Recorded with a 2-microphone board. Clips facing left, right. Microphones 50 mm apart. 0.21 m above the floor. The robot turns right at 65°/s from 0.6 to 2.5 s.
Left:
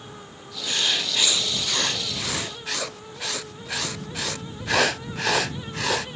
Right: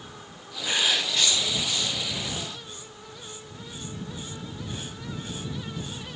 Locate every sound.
0.7 s writing: 20° right; by 6.1 s 100° left